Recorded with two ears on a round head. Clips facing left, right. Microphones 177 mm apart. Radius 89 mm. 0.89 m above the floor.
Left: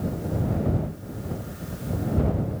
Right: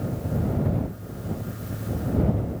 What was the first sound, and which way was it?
Only background noise.